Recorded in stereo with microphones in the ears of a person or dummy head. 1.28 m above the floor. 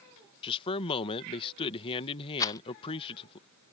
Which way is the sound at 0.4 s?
30° left (ahead or behind).